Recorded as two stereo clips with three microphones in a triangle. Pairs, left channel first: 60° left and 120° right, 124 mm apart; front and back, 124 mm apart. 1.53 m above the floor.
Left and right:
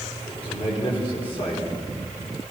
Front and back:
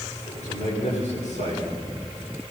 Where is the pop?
I don't hear a pop.